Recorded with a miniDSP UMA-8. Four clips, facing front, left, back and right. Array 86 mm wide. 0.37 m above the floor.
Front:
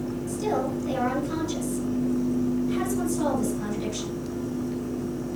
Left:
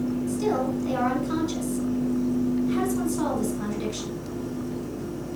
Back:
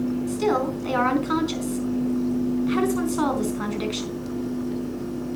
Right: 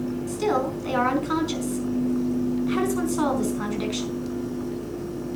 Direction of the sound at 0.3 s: 145° right.